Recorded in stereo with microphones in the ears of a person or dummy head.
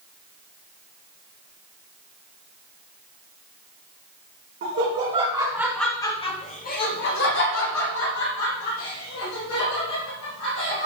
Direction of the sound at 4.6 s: 50° right (ahead or behind).